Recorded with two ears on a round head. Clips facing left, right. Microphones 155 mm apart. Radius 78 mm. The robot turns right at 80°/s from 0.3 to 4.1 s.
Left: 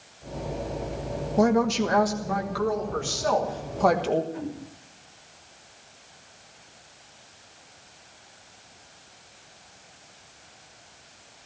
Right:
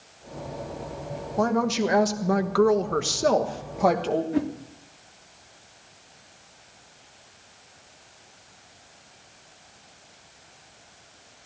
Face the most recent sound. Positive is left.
turn(degrees=-70)  # may be behind; listen again after turning